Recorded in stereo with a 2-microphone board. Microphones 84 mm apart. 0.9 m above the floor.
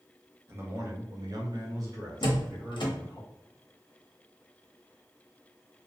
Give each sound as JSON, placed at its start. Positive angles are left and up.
{"t": 0.5, "sound": "a man speaking", "side_deg": -30, "distance_m": 0.8}
{"t": 2.2, "sound": "a door slam", "side_deg": 75, "distance_m": 0.7}